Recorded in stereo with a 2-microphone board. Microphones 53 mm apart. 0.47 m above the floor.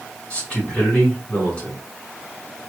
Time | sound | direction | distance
0.3 | a man speaking | 20° left (ahead or behind) | 2 m